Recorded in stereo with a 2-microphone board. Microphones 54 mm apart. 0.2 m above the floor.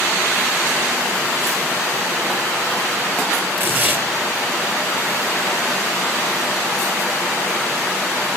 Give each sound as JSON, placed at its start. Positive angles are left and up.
{"t": 3.6, "sound": "tearing paper", "side_deg": -35, "distance_m": 1.5}